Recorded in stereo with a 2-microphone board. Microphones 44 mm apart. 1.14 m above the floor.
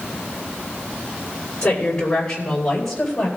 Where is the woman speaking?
25° left (ahead or behind), 4 m; by 3.3 s 5° left (ahead or behind), 5 m.